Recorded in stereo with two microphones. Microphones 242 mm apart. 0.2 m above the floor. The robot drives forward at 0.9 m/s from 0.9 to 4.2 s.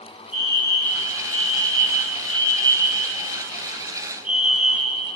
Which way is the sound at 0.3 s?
5° right (ahead or behind).